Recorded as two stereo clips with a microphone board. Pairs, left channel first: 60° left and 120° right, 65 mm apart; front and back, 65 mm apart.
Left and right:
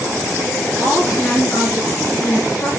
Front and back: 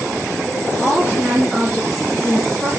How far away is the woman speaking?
About 5.5 m.